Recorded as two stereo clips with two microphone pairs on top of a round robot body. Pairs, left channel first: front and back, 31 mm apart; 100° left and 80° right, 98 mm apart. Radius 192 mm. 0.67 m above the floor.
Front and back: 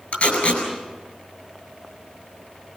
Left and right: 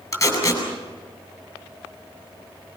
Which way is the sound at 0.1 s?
40° left.